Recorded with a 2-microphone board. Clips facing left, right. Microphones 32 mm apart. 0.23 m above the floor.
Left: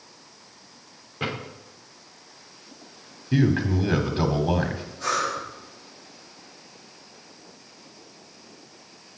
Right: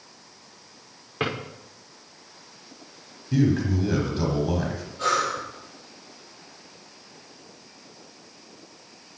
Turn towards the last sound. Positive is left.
turn(degrees=-75)  # may be behind; listen again after turning